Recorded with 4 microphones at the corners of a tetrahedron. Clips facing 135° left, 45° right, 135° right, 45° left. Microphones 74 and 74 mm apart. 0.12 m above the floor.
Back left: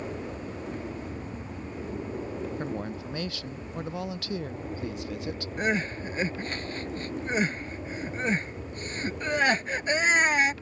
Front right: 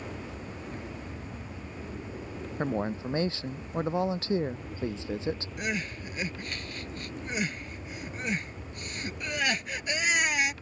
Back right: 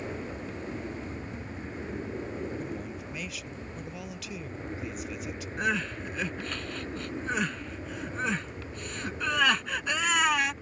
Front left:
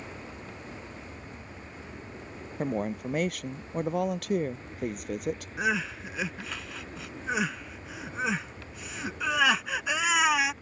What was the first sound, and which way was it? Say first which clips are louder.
An aircraft: back left 4 dB, back right 6 dB; straight behind.